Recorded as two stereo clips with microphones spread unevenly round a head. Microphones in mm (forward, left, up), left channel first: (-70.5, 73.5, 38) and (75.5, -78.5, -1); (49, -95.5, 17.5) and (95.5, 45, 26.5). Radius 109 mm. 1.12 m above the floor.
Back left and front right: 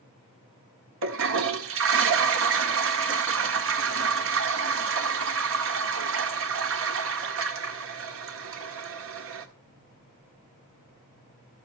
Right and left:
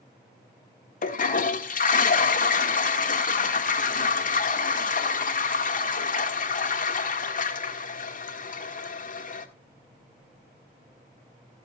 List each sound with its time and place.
1.0 s a toilet flushing: 80° right, 1.8 m